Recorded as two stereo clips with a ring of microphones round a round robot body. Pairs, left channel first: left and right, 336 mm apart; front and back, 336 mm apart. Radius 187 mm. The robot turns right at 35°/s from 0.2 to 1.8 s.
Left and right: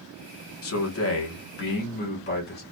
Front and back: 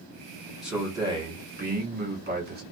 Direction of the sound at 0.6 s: 95° left.